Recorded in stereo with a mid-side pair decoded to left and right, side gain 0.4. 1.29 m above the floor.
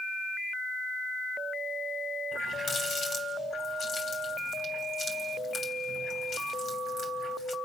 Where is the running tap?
55° left, 3 m.